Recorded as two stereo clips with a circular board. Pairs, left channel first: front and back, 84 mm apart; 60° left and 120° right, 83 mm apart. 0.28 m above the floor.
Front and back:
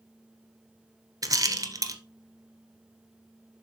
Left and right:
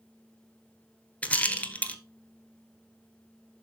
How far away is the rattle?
About 1.0 m.